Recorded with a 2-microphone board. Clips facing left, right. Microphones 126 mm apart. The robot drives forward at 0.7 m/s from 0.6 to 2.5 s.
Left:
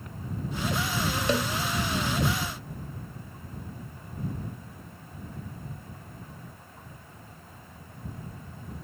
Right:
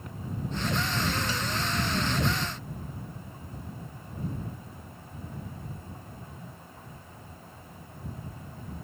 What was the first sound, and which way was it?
A cowbell, 65° left (ahead or behind).